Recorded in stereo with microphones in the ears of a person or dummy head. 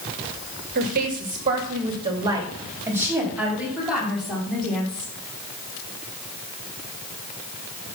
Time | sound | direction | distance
0.8 | a woman speaking | 55° right (ahead or behind) | 2 m